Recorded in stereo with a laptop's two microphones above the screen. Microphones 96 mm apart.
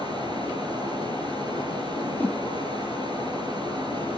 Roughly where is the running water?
Right.